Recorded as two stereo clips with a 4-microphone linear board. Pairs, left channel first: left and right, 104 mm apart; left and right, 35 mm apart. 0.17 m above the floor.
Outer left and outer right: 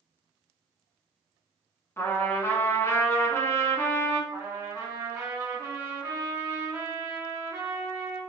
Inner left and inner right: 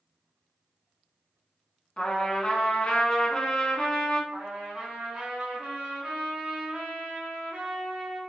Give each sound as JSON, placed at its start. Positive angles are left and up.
{"t": 2.0, "sound": "a trumpet", "side_deg": 25, "distance_m": 0.7}
{"t": 4.3, "sound": "a trumpet", "side_deg": -30, "distance_m": 1.7}